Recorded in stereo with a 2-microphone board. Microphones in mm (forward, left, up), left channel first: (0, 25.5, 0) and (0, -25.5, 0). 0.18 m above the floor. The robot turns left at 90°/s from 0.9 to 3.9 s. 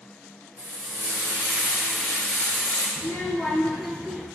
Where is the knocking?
I don't hear knocking.